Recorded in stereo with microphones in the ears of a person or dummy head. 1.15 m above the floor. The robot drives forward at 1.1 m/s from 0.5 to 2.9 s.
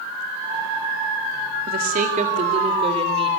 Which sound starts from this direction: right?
A woman speaking, at 1.7 s.